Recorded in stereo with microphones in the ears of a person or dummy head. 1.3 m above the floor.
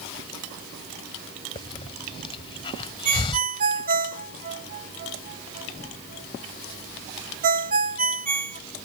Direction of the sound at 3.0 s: 50° right (ahead or behind).